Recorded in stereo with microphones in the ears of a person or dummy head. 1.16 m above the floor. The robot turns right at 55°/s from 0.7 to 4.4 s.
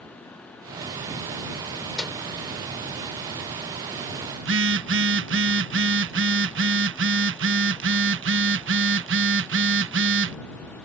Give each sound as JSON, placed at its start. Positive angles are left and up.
{"t": 2.0, "sound": "a microwave", "side_deg": 0}
{"t": 4.4, "sound": "a phone buzzing", "side_deg": -55}